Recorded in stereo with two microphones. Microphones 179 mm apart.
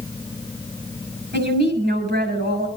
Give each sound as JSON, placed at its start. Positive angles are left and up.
{"t": 1.3, "sound": "a woman speaking", "side_deg": -80, "distance_m": 7.0}